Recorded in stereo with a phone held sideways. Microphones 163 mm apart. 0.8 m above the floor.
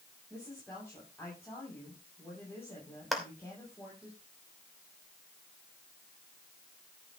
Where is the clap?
Centre (ahead or behind), 2.5 m.